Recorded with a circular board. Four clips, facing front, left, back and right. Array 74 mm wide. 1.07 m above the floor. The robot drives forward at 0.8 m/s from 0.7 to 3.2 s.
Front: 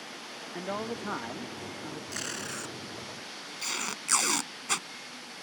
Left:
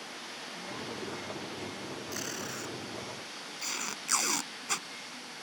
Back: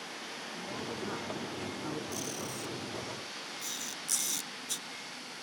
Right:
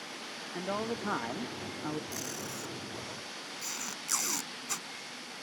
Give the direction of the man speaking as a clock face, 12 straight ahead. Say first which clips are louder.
Right 7 dB, front 6 dB; 2 o'clock.